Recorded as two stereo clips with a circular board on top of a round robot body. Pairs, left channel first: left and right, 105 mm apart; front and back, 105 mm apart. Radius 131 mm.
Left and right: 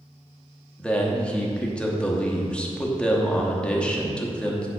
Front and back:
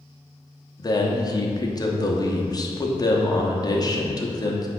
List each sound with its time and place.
0.8 s a man speaking: 15° left, 1.2 m